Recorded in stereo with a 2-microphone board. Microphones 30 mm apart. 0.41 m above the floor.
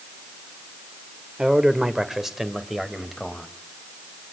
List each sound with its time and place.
1.4 s a man speaking: 25° right (ahead or behind), 1.6 m; by 3.5 s 5° right (ahead or behind), 2.5 m